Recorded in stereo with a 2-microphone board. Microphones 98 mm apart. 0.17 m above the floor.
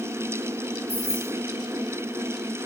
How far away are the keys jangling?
About 4.5 m.